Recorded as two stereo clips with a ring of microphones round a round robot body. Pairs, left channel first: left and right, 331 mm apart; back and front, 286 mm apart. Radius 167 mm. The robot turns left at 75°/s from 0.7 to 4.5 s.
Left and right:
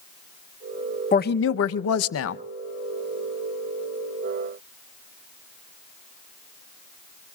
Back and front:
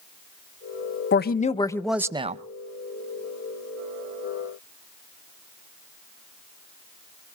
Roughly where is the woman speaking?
Behind left.